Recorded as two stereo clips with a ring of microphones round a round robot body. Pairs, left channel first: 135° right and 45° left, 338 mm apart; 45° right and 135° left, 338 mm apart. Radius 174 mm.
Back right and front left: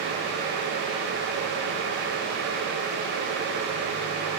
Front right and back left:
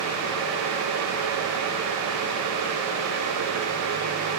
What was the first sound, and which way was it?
Only background noise.